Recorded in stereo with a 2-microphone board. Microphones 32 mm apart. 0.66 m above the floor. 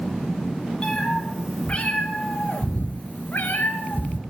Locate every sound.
0.8 s a cat meowing: 30° left (ahead or behind), 2.5 m; by 4.2 s 70° left (ahead or behind), 1.6 m